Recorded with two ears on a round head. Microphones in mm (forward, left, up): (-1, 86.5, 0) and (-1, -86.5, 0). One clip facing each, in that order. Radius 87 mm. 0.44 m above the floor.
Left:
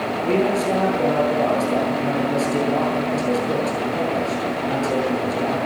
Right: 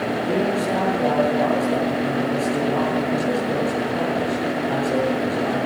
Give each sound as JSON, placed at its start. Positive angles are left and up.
{"t": 0.2, "sound": "a man speaking", "side_deg": 30, "distance_m": 9.5}